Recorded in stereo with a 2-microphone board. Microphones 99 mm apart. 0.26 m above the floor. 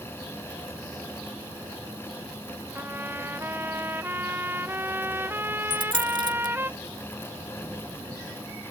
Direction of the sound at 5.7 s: 55° right (ahead or behind).